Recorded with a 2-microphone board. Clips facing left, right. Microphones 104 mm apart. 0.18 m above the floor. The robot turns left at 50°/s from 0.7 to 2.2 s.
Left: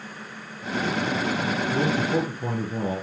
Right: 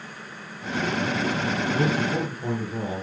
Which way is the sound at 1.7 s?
20° left (ahead or behind).